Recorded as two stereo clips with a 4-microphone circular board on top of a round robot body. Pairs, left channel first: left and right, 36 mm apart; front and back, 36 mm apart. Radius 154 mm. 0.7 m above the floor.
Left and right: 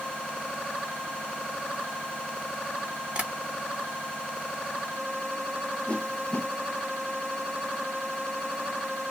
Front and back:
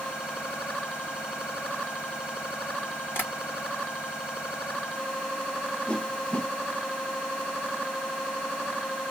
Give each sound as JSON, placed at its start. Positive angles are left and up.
{"t": 3.1, "sound": "tapping", "azimuth_deg": -30, "distance_m": 2.5}
{"t": 5.9, "sound": "a whoosh", "azimuth_deg": 50, "distance_m": 0.9}